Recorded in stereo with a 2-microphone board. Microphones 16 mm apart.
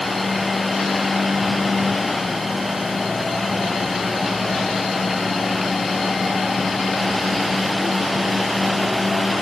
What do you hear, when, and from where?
Only background noise.